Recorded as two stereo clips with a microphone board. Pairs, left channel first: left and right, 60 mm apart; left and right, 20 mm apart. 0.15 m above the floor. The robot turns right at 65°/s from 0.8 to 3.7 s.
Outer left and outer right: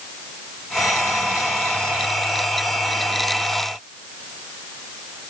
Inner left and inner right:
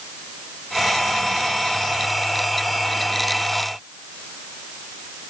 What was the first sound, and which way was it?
Only background noise.